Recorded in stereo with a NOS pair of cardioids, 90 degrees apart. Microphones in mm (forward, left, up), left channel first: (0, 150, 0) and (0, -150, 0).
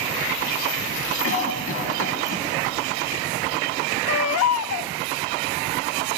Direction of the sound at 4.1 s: 55° left.